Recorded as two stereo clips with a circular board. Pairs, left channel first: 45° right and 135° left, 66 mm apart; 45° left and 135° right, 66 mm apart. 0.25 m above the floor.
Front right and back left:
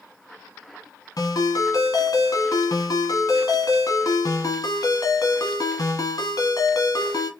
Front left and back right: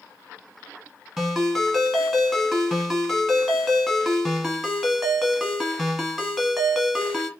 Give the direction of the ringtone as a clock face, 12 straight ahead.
2 o'clock.